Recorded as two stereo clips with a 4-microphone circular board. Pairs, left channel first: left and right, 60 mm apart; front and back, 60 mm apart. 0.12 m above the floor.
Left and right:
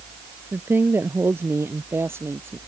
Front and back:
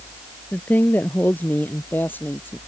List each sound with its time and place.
0.5 s a woman speaking: 50° right